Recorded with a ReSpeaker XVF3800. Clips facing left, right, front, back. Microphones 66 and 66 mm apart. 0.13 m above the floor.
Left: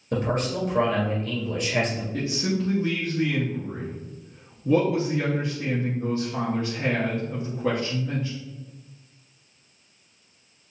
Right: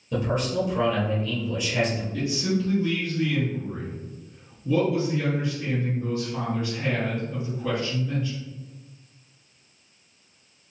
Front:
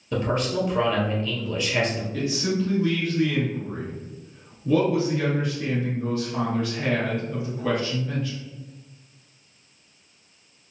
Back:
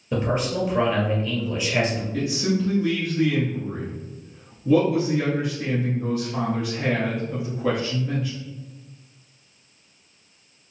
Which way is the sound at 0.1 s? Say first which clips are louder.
Even, even; 110° left.